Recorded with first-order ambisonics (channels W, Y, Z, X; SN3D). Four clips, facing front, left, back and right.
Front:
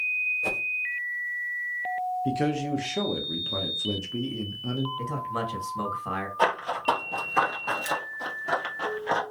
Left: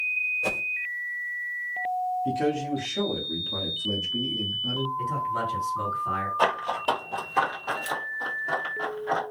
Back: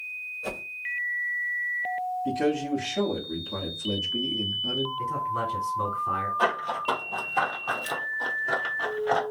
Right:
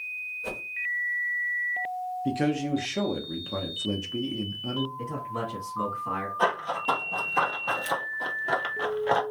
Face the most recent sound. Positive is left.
turn(degrees=-65)